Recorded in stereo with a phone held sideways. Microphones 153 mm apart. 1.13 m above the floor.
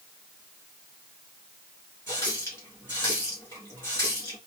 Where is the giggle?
I don't hear a giggle.